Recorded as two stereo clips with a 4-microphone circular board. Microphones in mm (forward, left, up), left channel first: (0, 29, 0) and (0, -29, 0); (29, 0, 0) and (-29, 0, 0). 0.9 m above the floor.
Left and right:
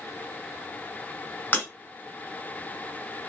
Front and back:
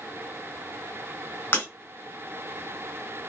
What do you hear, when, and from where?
1.5 s breaking glass: 40° left, 1.2 m